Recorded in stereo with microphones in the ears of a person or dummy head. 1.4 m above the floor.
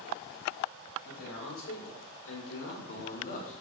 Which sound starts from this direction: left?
A man speaking, at 1.0 s.